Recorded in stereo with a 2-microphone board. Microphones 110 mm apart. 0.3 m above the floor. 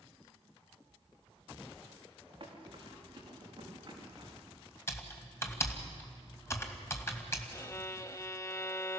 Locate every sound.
2.4 s running footsteps: 45° right (ahead or behind), 7.5 m; by 4.4 s 35° right (ahead or behind), 8 m
4.9 s typing on a keyboard: 25° left (ahead or behind), 2 m
7.5 s a violin: 30° left (ahead or behind), 0.5 m